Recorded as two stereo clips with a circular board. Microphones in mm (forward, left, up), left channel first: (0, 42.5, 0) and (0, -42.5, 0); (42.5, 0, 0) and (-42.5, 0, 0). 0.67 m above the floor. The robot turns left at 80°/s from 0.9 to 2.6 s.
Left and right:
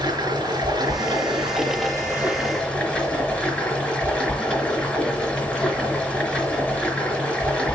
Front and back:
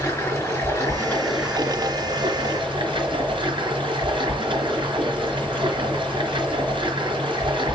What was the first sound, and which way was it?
Running water, 60° right.